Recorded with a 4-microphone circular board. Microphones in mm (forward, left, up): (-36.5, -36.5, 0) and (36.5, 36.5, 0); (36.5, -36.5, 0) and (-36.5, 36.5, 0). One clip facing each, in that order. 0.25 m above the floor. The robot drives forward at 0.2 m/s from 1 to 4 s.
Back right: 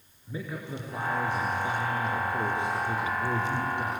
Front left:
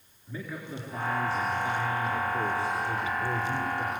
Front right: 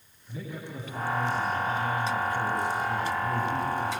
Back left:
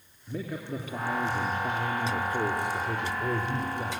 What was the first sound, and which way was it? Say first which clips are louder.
A man speaking: back right 2 dB, back left 4 dB; 155° left.